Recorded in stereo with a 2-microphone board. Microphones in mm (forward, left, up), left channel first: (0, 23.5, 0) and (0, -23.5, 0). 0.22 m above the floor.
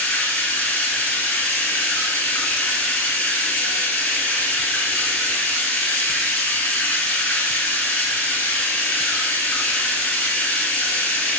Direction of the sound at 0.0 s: 30° left (ahead or behind).